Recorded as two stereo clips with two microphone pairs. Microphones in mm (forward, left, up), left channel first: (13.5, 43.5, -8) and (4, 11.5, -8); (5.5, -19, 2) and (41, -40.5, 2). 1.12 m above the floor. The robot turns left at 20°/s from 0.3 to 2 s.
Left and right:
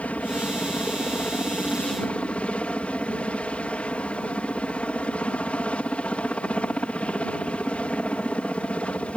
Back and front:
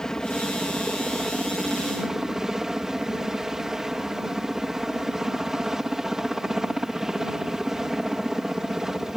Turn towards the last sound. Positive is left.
turn(degrees=45)